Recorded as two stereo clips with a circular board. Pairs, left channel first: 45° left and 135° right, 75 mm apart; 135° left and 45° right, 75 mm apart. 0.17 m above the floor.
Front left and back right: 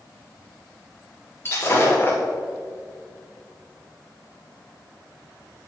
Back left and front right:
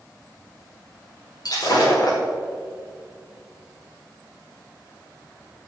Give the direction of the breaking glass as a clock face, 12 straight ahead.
9 o'clock.